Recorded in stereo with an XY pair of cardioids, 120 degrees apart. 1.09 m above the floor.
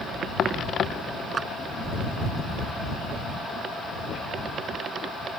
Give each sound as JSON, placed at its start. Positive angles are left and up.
{"t": 1.3, "sound": "a clap", "azimuth_deg": -40}